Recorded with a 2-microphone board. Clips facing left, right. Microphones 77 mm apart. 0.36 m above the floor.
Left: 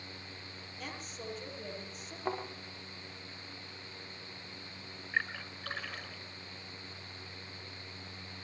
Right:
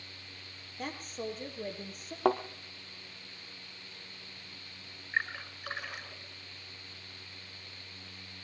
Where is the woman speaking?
50° right (ahead or behind), 8.5 m.